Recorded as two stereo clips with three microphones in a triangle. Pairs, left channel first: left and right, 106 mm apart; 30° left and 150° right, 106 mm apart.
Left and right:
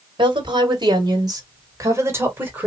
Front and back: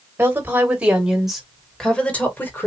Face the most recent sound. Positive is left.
turn(degrees=-25)